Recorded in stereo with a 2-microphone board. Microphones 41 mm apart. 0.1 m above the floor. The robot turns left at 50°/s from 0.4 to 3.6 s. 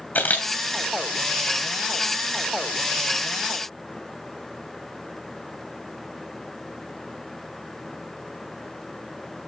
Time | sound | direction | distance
0.1 | a camera shutter | 50° left (ahead or behind) | 2 m